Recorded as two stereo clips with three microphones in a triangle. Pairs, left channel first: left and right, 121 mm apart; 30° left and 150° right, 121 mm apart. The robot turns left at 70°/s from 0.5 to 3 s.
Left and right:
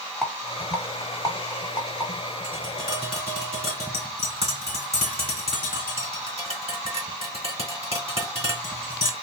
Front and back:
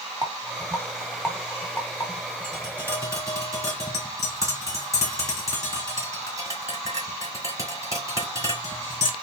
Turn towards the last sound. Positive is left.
turn(degrees=-90)